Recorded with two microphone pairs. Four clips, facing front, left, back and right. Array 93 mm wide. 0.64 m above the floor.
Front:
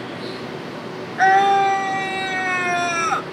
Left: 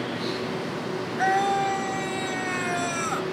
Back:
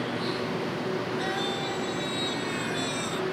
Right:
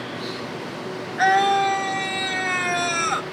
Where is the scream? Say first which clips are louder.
Right 5 dB, front 16 dB; 20° right.